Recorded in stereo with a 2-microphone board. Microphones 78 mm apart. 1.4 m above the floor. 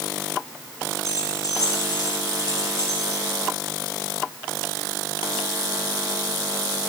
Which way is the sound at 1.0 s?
50° left (ahead or behind).